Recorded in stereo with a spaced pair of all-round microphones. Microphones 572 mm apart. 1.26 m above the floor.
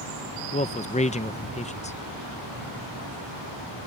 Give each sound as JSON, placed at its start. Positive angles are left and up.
{"t": 0.5, "sound": "a man speaking", "side_deg": 10}